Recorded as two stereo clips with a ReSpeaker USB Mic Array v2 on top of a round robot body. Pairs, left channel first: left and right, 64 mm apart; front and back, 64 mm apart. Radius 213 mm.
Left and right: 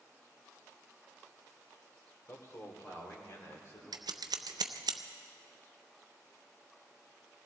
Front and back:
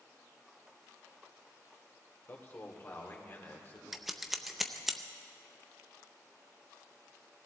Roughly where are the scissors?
Right.